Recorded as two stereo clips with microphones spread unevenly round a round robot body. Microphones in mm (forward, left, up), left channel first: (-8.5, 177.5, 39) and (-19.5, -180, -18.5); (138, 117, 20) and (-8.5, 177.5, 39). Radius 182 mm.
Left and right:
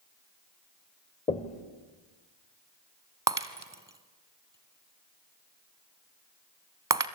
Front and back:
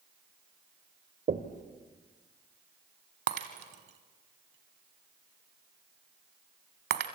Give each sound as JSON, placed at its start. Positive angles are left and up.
{"t": 1.3, "sound": "knocking", "azimuth_deg": 160, "distance_m": 1.5}
{"t": 3.3, "sound": "breaking glass", "azimuth_deg": -170, "distance_m": 1.1}